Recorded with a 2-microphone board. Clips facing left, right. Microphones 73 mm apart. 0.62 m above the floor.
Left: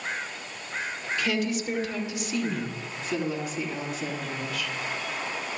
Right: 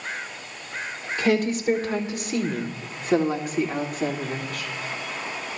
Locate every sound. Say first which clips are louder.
1.2 s a woman speaking: right 6 dB; 40° right (ahead or behind), 2.5 m; by 4.7 s 50° right (ahead or behind), 1.7 m